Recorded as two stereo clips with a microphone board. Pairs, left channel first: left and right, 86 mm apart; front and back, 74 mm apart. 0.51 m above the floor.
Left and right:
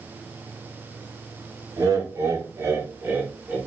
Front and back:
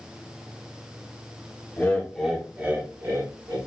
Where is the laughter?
60° right, 1.0 m; by 3.6 s 165° right, 1.3 m.